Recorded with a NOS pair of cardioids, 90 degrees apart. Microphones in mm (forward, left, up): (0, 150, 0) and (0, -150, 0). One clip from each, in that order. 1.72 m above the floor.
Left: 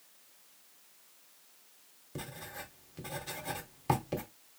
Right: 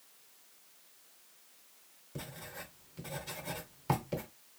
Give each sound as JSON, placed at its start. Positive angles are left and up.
{"t": 2.1, "sound": "writing", "azimuth_deg": 15, "distance_m": 1.5}